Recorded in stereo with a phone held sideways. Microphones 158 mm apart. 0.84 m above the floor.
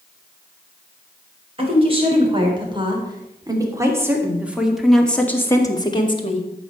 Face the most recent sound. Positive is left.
turn(degrees=40)  # may be behind; listen again after turning